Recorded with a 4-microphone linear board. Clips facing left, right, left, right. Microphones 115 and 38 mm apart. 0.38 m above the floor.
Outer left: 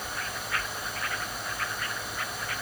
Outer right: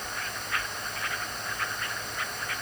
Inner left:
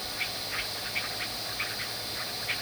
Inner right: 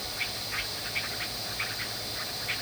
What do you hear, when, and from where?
Only background noise.